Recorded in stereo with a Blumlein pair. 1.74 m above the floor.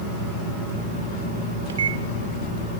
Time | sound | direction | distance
1.7 | a microwave | 65° right | 1.6 m